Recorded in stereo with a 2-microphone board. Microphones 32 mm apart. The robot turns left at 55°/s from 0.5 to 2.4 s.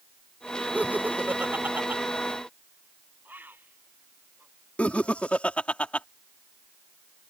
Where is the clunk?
No clunk in this recording.